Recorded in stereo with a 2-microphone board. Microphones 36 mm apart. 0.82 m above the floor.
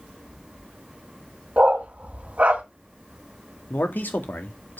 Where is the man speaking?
60° left (ahead or behind), 1.8 m.